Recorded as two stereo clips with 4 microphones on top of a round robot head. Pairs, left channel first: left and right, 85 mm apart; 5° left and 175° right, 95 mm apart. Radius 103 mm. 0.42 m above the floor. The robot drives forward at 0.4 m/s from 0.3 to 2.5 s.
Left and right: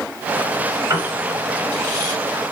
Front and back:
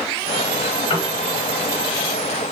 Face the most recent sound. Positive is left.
turn(degrees=-55)